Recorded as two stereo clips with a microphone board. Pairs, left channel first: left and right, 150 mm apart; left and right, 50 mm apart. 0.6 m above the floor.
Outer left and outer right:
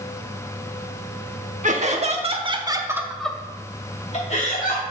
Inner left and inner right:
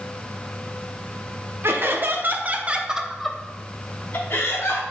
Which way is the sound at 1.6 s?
55° right (ahead or behind).